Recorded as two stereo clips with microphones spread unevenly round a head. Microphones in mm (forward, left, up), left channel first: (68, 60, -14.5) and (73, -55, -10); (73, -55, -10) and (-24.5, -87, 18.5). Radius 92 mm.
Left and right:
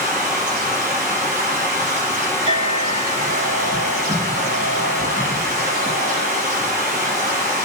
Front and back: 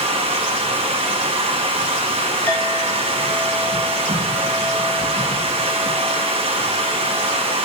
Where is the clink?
55° right, 5.5 m.